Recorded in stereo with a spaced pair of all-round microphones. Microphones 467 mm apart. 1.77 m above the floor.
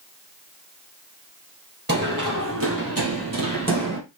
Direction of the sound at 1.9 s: 20° right (ahead or behind).